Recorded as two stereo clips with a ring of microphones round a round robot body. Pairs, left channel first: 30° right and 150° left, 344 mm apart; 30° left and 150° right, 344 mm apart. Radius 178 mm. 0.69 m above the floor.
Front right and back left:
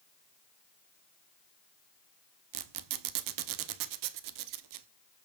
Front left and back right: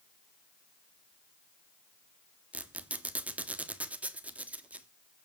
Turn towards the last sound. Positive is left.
turn(degrees=125)